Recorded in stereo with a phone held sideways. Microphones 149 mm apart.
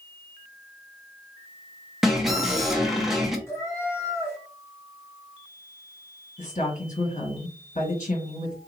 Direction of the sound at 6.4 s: 55° left (ahead or behind).